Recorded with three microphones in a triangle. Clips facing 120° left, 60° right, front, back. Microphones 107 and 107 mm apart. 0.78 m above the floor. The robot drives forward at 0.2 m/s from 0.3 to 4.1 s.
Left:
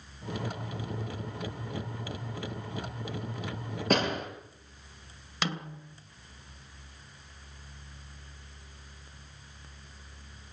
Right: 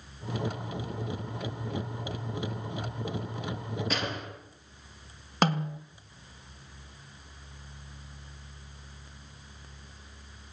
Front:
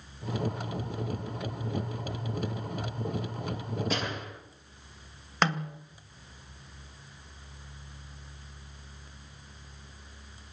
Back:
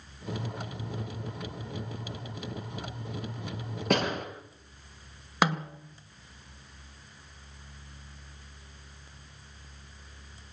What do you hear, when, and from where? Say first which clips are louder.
3.9 s a door slam: left 10 dB, back 11 dB; 160° left, 9.5 m
5.4 s a snare drum: right 8 dB, back 1 dB; 100° right, 2.5 m